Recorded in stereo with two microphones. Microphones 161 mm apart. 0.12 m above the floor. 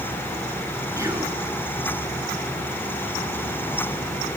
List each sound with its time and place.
1.0 s whispering: 20° right (ahead or behind), 1.2 m